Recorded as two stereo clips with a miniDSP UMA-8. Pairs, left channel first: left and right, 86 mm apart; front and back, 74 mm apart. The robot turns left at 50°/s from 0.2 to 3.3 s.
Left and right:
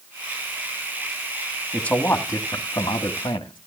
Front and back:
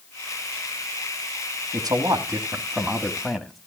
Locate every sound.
1.7 s a man speaking: 170° left, 1.7 m; by 3.6 s 90° left, 1.7 m